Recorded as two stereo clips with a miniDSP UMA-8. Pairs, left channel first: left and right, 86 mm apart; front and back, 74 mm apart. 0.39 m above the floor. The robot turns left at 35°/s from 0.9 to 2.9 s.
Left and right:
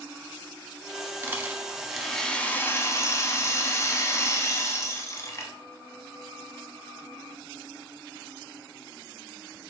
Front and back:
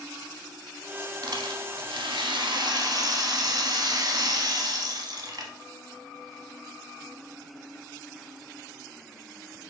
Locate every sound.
1.2 s a rattle: 155° right, 0.8 m; by 5.5 s 145° left, 0.8 m